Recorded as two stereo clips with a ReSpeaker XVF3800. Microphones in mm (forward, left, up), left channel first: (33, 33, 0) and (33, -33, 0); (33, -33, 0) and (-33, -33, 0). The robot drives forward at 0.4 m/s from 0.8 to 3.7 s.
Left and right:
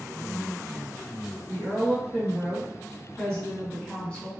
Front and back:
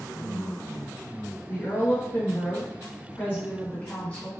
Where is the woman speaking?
15° left, 2.0 m; by 4.3 s 35° left, 1.5 m.